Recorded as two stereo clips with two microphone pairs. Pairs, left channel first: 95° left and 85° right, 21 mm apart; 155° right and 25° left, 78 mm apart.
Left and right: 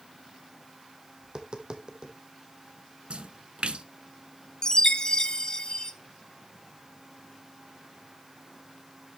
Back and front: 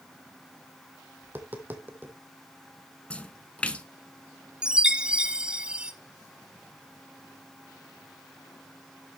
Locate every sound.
1.2 s tapping: 40° right, 1.3 m
3.1 s a splash: 80° right, 0.6 m
4.6 s a chime: 90° left, 0.7 m